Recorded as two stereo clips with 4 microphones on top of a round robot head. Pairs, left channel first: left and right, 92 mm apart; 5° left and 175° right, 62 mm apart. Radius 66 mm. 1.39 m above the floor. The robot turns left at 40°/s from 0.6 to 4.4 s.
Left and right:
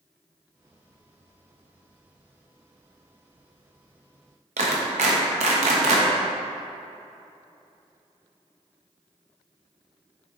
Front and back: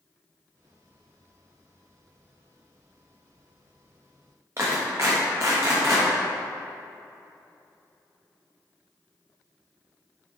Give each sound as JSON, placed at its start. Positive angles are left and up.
{"t": 4.6, "sound": "a clap", "azimuth_deg": -110, "distance_m": 1.0}